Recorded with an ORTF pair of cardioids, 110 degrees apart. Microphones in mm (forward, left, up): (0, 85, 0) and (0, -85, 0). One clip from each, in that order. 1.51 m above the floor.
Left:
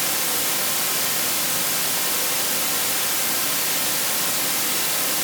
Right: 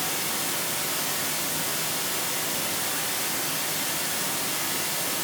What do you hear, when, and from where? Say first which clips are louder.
0.0 s running water: left 4 dB; 55° left, 1.5 m